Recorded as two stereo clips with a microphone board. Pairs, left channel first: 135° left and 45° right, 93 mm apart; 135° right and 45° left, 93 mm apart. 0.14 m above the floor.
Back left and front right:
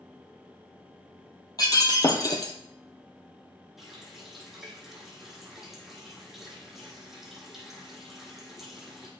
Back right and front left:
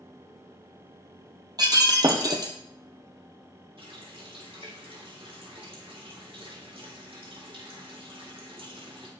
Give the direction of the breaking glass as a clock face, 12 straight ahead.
9 o'clock.